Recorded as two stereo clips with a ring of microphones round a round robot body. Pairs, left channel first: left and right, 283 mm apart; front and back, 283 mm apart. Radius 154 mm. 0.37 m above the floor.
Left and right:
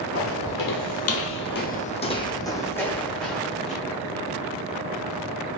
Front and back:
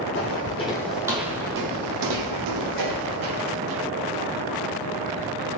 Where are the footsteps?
50° left, 0.7 m; by 3.8 s straight behind, 1.5 m.